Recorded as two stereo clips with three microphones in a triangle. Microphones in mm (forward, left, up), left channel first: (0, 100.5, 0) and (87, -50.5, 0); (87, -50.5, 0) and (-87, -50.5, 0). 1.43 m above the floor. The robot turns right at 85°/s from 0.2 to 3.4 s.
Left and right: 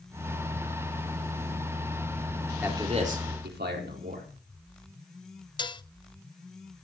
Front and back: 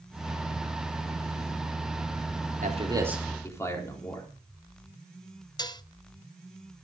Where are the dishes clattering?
60° left, 0.7 m.